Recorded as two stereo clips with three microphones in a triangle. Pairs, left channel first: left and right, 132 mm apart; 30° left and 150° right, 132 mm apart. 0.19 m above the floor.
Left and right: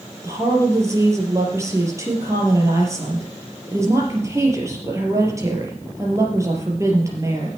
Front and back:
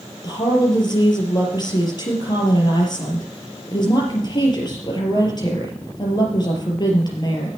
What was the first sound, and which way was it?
A woman speaking, 25° right.